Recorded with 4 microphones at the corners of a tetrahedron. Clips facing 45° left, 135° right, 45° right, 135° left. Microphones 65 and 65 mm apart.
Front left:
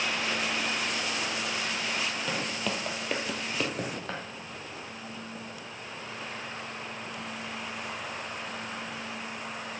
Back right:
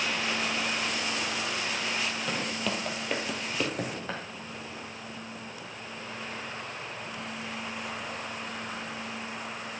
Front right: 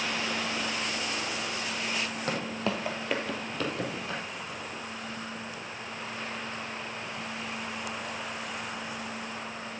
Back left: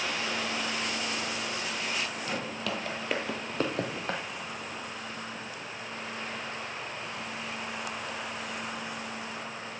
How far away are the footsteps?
About 1.3 m.